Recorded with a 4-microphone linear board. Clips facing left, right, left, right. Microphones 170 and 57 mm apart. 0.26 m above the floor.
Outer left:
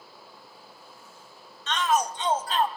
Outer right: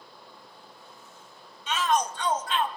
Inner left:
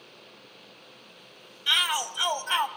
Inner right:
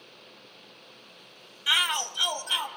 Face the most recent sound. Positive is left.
turn(degrees=45)  # may be behind; listen again after turning